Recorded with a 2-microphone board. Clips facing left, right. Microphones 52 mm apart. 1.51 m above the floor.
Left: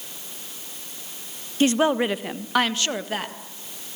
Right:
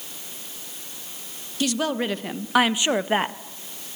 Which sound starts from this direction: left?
A woman speaking, at 1.6 s.